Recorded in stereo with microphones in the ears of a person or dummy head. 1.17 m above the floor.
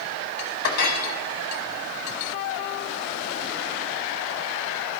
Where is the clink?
50° left (ahead or behind), 1.0 m.